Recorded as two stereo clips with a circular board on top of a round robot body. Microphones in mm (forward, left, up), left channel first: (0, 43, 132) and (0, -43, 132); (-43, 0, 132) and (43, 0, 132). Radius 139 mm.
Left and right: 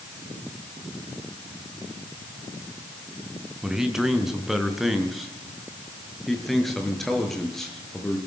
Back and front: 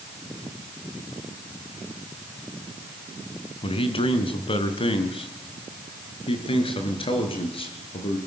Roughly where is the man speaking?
Behind.